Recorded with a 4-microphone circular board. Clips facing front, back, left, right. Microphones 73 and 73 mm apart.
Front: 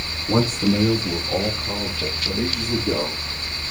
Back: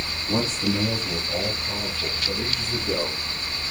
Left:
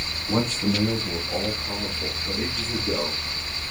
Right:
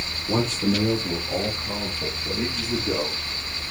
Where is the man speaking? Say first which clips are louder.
Front 5 dB, right 1 dB; 45° right, 5.5 m; by 3.2 s 15° right, 6.5 m.